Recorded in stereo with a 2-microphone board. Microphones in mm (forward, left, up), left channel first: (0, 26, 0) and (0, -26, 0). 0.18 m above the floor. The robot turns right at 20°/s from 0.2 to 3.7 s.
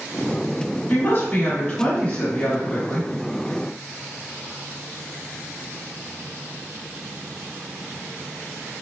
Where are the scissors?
I don't hear scissors.